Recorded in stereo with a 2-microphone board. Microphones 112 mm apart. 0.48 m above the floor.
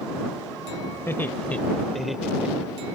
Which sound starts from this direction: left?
Laughter, at 1.1 s.